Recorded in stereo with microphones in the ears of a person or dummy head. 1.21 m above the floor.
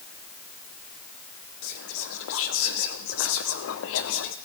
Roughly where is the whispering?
Left.